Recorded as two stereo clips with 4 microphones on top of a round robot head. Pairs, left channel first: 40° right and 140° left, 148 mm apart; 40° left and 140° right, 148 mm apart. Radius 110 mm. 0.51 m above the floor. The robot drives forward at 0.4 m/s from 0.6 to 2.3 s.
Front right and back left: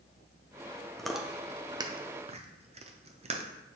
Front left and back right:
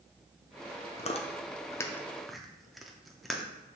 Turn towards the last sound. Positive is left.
turn(degrees=130)